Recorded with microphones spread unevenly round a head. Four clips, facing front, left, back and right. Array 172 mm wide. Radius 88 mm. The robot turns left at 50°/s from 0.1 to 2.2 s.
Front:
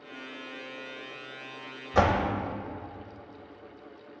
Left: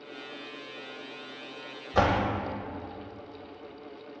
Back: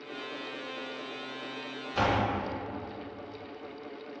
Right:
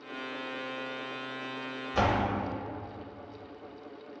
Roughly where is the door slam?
Ahead left.